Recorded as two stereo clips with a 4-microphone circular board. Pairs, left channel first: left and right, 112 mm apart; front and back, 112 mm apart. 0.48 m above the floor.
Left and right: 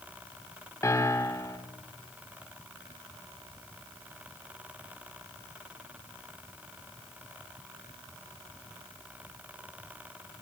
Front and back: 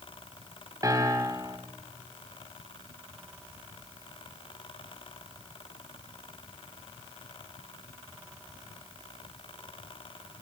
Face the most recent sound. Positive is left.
turn(degrees=140)